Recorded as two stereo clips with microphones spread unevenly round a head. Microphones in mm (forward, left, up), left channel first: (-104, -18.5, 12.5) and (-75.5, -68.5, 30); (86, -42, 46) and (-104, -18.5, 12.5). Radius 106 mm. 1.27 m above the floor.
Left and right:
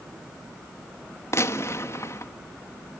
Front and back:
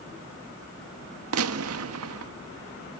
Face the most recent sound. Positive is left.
turn(degrees=160)